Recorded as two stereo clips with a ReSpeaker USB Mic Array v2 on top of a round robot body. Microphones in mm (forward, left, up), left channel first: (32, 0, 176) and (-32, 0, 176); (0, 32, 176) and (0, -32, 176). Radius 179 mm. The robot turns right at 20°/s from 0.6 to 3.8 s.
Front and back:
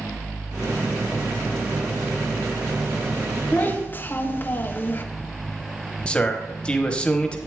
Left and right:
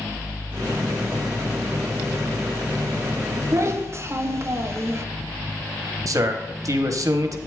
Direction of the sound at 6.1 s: 75° right.